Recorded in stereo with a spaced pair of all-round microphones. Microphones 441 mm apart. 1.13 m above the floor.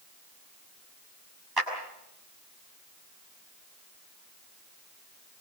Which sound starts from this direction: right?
A clap, at 1.6 s.